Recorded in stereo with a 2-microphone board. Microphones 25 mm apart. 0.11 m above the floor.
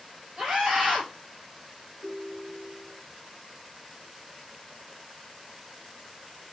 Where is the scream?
35° right (ahead or behind), 1.8 m.